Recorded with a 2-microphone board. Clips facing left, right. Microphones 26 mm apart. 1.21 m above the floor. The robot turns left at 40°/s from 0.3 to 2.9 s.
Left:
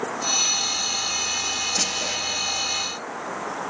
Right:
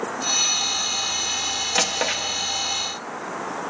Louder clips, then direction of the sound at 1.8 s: Right 3 dB; 65° right (ahead or behind).